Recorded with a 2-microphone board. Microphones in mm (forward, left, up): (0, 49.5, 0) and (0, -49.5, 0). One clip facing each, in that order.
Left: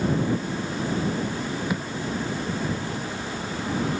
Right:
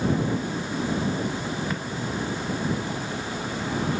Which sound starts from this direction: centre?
A thud, at 1.7 s.